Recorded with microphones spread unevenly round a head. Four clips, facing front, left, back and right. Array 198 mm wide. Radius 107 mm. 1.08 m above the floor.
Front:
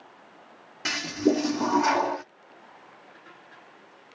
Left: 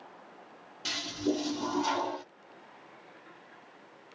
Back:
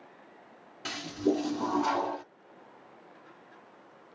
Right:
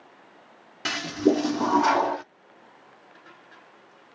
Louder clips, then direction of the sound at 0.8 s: Right 9 dB, front 5 dB; 60° right.